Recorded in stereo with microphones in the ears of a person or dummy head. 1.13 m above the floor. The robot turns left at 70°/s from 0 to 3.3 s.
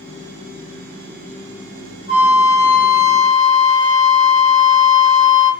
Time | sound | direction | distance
2.1 | a flute | 50° left | 1.0 m